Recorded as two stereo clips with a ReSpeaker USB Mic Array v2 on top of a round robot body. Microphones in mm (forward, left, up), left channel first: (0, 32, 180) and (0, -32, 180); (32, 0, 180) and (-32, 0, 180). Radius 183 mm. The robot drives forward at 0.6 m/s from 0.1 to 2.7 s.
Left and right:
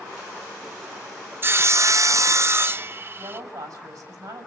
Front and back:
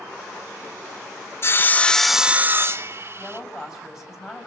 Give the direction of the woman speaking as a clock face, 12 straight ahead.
3 o'clock.